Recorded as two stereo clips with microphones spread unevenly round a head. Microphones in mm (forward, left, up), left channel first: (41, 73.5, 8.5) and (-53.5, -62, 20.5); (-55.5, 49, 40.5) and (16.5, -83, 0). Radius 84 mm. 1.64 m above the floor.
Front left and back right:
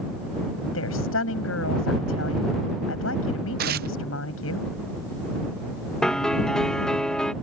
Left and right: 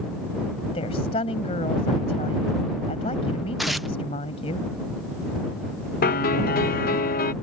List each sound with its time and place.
0.7 s a woman speaking: 60° left
3.6 s tearing paper: 155° right
6.0 s a piano: 140° left